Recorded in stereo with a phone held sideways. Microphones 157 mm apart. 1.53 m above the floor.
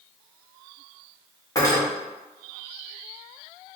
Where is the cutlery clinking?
20° left (ahead or behind), 1.1 m.